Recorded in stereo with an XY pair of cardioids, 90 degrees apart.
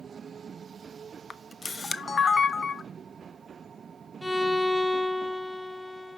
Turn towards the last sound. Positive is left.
turn(degrees=10)